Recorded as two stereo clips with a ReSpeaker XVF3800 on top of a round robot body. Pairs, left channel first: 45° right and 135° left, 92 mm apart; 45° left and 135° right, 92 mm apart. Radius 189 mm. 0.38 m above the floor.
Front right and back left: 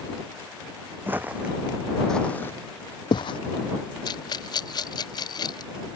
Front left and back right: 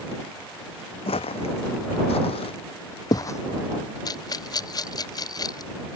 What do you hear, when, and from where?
1.1 s footsteps: 65° left; by 3.4 s 15° right
4.0 s a rattle: 5° right